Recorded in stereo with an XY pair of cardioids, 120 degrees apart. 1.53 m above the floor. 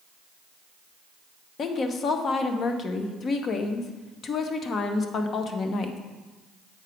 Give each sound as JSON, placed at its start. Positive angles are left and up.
{"t": 1.6, "sound": "a woman speaking", "azimuth_deg": 40, "distance_m": 0.9}